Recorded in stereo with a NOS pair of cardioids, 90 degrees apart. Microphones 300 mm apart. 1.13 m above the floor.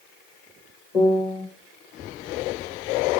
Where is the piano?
20° left, 1.0 m.